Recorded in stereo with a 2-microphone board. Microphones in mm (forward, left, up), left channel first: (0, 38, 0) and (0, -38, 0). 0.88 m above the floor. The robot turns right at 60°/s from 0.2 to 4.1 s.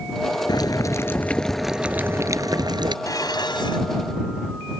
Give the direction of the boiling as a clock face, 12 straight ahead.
8 o'clock.